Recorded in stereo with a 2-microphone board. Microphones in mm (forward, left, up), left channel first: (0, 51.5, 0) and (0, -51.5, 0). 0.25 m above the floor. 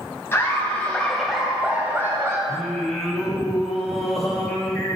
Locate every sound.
0.3 s laughter: 25° left (ahead or behind), 2 m; by 2.4 s 30° right (ahead or behind), 1.8 m
2.5 s singing: centre (ahead or behind), 1.5 m